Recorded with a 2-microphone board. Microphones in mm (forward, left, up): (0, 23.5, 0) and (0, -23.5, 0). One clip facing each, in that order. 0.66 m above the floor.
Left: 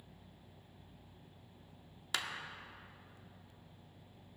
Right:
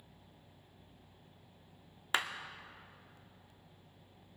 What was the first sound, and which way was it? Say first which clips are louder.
A clap: right 5 dB; 25° right (ahead or behind).